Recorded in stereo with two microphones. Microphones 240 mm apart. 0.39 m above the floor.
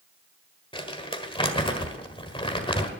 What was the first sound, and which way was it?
Crumpling, 20° left (ahead or behind).